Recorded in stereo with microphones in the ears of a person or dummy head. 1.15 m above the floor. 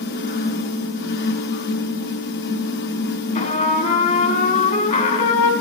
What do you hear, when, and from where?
0.0 s a fan: 60° left (ahead or behind), 1.1 m
3.4 s a trumpet: 45° left (ahead or behind), 1.4 m